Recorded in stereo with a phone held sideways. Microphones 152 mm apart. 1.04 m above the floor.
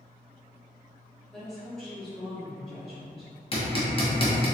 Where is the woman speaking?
5° left (ahead or behind), 1.9 m.